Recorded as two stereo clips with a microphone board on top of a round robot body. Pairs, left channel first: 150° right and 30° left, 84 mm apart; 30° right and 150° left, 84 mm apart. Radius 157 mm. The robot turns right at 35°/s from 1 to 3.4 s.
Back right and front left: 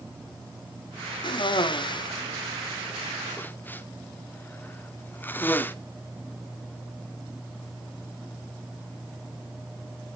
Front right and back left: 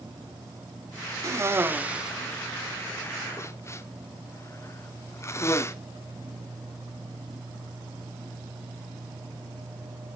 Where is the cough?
160° right, 2 m; by 5.8 s 85° right, 2 m.